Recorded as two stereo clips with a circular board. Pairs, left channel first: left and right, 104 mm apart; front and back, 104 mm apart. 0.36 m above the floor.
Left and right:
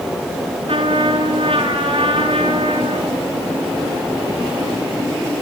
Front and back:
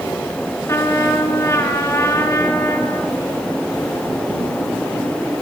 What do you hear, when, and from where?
0.7 s a trumpet: 60° right, 5.5 m